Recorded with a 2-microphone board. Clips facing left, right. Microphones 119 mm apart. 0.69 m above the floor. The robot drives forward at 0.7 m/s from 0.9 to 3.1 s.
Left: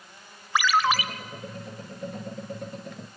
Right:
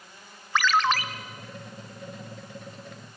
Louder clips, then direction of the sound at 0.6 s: Even; 5° left (ahead or behind).